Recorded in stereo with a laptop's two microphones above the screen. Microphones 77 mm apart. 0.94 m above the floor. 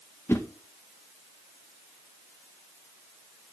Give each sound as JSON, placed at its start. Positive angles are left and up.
{"t": 0.3, "sound": "a whoosh", "side_deg": 35, "distance_m": 0.6}